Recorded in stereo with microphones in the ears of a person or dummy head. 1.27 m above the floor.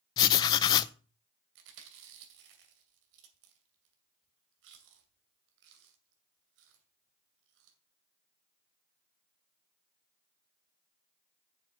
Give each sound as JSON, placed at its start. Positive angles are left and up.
{"t": 0.2, "sound": "writing", "side_deg": 20, "distance_m": 0.6}
{"t": 1.6, "sound": "chewing", "side_deg": -70, "distance_m": 2.5}